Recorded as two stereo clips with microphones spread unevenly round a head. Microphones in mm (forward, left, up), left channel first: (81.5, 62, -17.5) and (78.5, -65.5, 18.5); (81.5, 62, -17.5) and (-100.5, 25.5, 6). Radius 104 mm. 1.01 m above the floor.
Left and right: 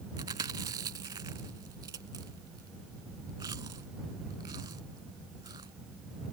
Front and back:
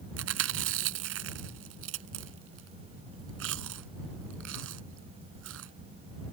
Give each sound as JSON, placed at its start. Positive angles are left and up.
{"t": 0.2, "sound": "chewing", "azimuth_deg": -160}